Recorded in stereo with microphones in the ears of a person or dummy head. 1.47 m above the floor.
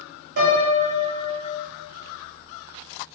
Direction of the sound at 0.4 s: 50° right (ahead or behind).